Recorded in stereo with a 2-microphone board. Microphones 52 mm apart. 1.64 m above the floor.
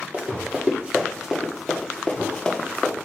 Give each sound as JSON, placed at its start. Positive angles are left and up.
{"t": 0.1, "sound": "running footsteps", "side_deg": -30, "distance_m": 2.0}